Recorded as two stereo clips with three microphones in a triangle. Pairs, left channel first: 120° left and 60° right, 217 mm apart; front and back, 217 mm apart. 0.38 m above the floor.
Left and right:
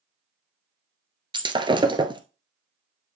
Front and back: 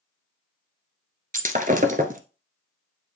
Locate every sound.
1.3 s breaking glass: 125° right, 1.0 m